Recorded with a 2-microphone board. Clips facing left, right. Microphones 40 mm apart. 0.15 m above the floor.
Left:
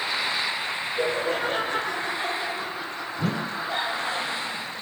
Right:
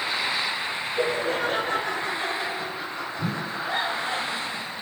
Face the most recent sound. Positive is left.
turn(degrees=80)